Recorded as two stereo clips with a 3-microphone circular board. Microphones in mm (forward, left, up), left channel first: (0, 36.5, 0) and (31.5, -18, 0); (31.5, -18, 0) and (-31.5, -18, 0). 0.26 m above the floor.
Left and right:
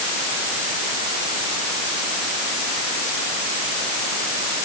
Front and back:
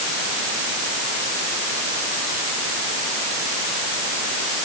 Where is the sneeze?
No sneeze in this recording.